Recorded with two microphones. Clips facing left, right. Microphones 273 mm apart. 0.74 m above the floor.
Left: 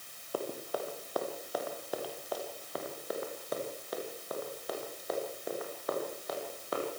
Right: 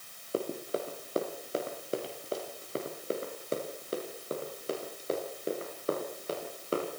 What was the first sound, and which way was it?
Running footsteps, 25° right (ahead or behind).